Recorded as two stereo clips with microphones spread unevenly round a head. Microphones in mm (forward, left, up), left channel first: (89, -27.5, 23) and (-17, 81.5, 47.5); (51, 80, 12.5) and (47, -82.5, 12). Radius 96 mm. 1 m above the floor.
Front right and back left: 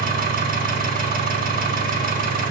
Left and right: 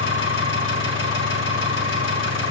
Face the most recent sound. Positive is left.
turn(degrees=105)